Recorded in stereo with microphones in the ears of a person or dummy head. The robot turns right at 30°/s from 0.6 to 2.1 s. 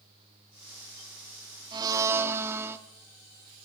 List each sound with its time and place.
1.7 s a blender: 25° right (ahead or behind), 1.7 m; by 2.8 s 15° right (ahead or behind), 1.7 m